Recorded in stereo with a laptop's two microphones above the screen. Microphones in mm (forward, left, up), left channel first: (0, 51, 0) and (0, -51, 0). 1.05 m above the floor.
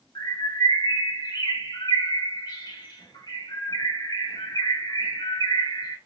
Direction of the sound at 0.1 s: 45° left (ahead or behind).